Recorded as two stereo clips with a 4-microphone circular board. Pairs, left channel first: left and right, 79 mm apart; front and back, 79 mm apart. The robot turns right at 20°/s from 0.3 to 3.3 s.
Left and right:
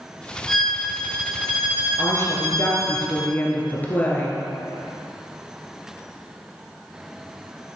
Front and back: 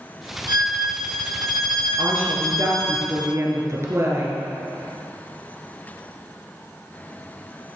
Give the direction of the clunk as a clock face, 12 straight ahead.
I don't hear a clunk.